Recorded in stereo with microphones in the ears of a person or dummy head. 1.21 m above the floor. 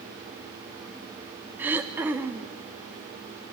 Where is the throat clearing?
10° right (ahead or behind), 0.7 m.